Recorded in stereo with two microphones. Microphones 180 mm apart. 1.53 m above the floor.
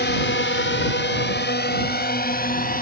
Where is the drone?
70° left (ahead or behind); by 2.8 s 50° left (ahead or behind).